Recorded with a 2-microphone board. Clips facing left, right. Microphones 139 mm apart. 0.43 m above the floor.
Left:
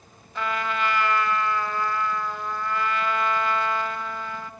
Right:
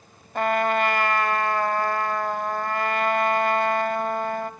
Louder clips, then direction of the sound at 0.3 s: Right 6 dB; 50° right (ahead or behind).